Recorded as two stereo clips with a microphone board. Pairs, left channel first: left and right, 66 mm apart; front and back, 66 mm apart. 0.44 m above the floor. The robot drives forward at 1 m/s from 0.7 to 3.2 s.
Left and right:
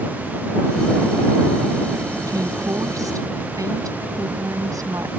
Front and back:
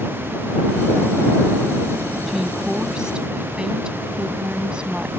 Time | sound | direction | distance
2.3 | a woman speaking | 90° right | ?